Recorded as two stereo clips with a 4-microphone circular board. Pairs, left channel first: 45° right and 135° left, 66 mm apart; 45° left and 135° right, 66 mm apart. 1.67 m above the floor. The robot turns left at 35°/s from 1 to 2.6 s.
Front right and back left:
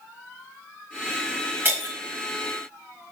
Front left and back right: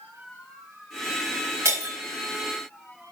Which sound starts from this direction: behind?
Breaking glass, at 1.6 s.